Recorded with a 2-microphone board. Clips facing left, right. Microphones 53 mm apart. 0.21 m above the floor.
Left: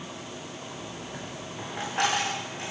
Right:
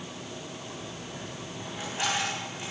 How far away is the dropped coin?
About 8 m.